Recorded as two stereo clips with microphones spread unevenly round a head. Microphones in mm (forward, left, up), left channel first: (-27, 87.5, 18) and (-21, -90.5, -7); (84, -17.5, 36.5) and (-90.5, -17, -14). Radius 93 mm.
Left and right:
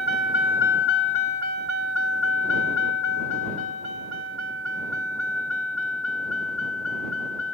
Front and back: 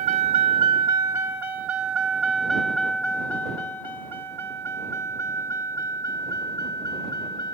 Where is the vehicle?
125° left; by 7.5 s 70° left.